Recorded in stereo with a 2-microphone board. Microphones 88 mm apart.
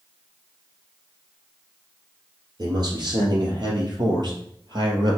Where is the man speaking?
50° right (ahead or behind), 3.5 m; by 5.2 s 55° right (ahead or behind), 2.5 m.